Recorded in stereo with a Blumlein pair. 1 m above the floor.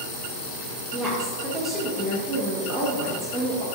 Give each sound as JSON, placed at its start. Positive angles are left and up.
{"t": 0.9, "sound": "a woman speaking", "azimuth_deg": -20, "distance_m": 0.7}